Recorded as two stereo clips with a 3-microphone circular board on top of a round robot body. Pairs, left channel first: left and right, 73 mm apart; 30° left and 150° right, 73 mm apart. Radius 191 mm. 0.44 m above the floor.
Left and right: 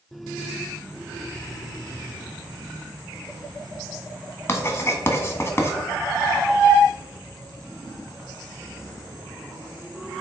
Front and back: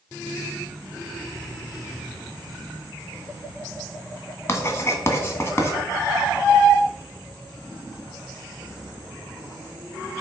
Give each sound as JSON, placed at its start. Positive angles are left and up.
{"t": 4.5, "sound": "writing", "azimuth_deg": 60, "distance_m": 1.5}